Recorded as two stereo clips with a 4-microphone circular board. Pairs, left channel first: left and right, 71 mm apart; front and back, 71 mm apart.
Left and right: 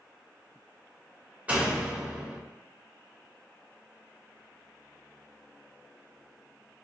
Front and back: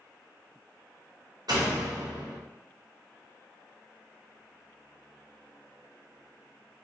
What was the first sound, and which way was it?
A door slam, 160° right.